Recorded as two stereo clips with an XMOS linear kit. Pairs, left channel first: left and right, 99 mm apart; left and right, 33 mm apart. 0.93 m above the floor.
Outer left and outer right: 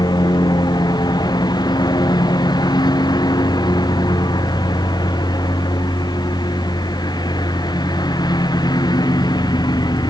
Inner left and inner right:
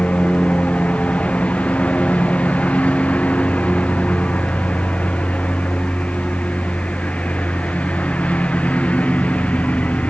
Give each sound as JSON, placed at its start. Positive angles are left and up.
{"t": 0.0, "sound": "a lawn mower", "side_deg": 40}